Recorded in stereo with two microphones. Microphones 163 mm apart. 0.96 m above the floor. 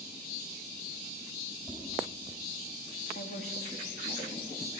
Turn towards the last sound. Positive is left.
turn(degrees=75)  # may be behind; listen again after turning